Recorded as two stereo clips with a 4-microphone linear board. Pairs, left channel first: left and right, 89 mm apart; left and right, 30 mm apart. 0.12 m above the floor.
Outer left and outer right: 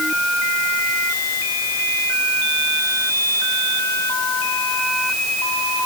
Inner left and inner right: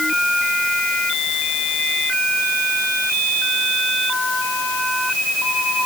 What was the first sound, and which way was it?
Only background noise.